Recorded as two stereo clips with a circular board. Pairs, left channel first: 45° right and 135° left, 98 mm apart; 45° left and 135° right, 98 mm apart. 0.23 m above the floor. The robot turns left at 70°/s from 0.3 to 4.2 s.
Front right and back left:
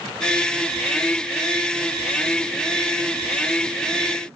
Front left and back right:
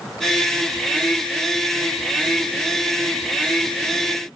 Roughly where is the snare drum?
I don't hear a snare drum.